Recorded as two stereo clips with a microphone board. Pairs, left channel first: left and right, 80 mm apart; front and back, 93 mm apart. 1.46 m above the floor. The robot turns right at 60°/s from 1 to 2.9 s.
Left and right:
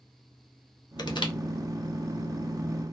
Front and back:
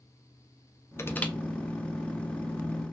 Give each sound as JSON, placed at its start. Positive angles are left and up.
{"t": 1.0, "sound": "crushing", "azimuth_deg": 60, "distance_m": 0.6}